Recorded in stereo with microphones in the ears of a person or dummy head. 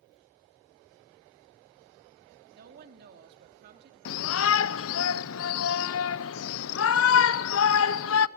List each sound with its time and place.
2.5 s a woman speaking: 55° right (ahead or behind), 2.5 m
4.0 s a shout: 70° left (ahead or behind), 0.6 m